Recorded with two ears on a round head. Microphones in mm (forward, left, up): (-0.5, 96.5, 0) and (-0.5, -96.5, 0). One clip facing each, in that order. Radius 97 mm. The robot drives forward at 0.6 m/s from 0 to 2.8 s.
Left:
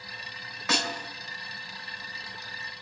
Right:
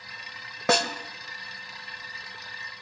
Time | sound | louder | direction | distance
0.7 | a snare drum | right 7 dB | 45° right (ahead or behind) | 2.5 m